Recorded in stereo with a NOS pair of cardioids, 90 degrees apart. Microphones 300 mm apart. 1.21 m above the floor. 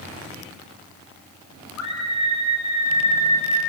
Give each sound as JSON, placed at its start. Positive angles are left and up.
{"t": 1.8, "sound": "a scream", "azimuth_deg": 60, "distance_m": 6.0}